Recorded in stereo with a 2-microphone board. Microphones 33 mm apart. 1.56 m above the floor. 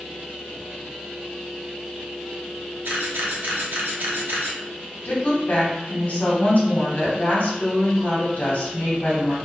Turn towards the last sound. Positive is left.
turn(degrees=45)  # may be behind; listen again after turning